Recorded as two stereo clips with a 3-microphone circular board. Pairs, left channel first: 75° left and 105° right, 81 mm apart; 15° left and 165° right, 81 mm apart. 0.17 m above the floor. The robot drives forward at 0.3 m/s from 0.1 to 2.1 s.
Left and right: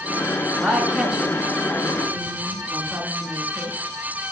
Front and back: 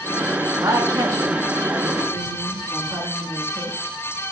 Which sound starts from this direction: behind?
A woman speaking, at 0.6 s.